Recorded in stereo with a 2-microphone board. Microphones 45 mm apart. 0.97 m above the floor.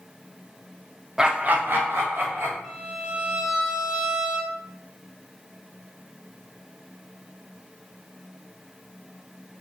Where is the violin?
15° right (ahead or behind), 0.6 m.